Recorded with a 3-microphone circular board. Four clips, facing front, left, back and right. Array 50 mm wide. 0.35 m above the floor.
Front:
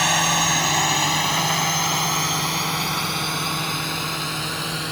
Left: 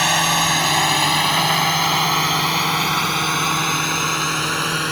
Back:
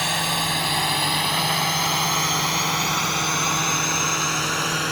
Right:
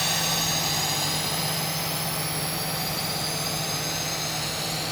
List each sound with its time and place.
0.0 s a drone: 65° left; by 4.9 s 110° left